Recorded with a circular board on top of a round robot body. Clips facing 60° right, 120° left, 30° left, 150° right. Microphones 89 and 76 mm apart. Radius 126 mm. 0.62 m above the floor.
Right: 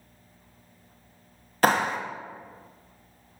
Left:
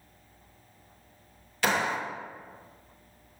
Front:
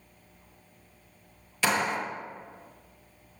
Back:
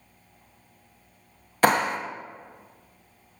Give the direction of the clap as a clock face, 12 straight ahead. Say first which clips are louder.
Right 5 dB, back 6 dB; 4 o'clock.